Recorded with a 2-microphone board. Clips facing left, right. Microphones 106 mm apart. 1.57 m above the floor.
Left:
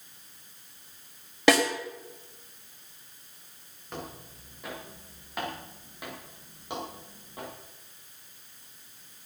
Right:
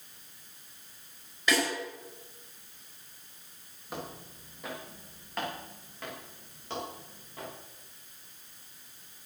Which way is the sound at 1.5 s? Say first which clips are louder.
Left 7 dB; 80° left.